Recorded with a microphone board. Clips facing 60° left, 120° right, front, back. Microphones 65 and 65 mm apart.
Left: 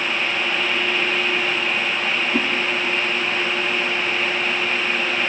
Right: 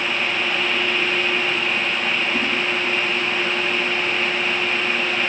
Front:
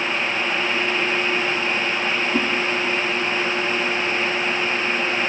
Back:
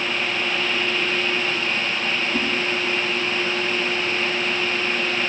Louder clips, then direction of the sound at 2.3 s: Left 1 dB, front 4 dB; 40° left.